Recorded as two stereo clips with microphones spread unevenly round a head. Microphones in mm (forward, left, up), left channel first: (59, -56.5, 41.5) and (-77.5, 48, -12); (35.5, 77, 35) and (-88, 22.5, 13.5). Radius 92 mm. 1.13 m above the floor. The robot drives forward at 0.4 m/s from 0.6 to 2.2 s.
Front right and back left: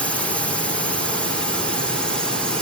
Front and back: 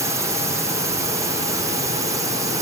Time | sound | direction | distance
0.0 | a drone | 145° right | ?